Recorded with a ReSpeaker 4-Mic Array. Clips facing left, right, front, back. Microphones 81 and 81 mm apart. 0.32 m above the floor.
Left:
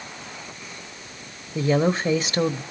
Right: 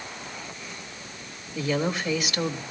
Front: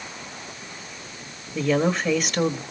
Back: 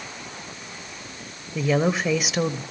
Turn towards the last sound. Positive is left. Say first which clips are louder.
# left 6 dB, even
turn(degrees=100)